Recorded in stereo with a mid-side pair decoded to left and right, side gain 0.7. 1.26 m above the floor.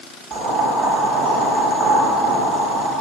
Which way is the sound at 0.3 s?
50° right.